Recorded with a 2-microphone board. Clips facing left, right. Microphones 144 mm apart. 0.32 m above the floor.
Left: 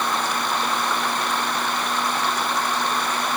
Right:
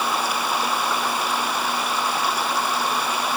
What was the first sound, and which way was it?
Running water, 10° right (ahead or behind).